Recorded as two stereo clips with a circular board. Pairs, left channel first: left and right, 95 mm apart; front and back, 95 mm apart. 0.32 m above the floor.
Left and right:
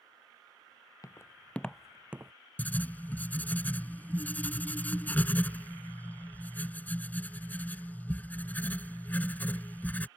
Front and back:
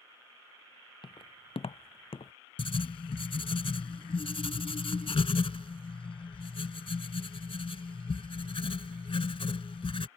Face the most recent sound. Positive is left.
turn(degrees=20)